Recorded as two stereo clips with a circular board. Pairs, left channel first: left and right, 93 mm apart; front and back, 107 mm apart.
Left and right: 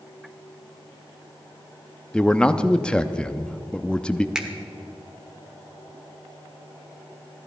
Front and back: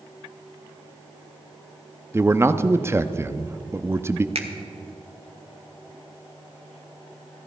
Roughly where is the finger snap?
Behind.